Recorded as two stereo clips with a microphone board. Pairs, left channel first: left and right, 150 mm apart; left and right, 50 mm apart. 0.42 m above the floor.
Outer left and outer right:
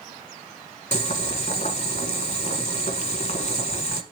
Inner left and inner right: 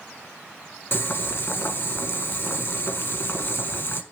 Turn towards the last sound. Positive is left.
turn(degrees=55)  # may be behind; listen again after turning